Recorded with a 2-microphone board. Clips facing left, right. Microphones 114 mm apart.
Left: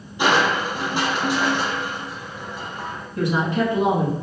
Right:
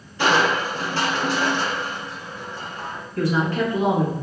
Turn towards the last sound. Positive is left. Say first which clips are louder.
# even
turn(degrees=20)  # may be behind; listen again after turning